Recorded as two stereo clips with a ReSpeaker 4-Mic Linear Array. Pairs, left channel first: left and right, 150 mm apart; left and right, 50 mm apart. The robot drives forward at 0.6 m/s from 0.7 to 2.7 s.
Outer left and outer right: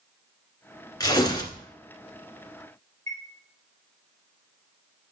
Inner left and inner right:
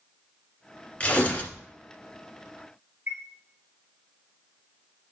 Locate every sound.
1.0 s tearing paper: 25° left (ahead or behind), 1.8 m
3.1 s a chime: 55° right (ahead or behind), 2.5 m